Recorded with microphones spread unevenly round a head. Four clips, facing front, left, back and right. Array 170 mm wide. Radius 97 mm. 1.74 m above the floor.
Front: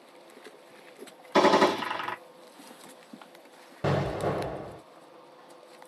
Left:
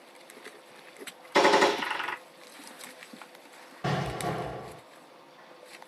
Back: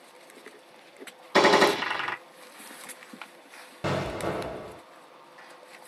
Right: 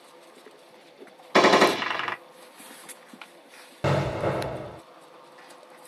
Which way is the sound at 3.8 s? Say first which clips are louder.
Right 6 dB, front 2 dB; 80° right.